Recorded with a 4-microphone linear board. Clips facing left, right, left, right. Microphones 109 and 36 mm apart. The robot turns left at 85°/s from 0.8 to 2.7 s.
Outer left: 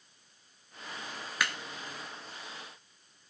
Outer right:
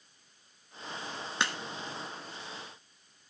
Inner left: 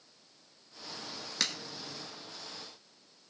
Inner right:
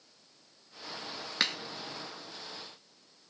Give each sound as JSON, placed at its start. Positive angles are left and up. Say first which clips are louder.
{"t": 1.4, "sound": "a crack", "louder": "outer right 1 dB, inner right 4 dB", "side_deg": -25, "distance_m": 1.2}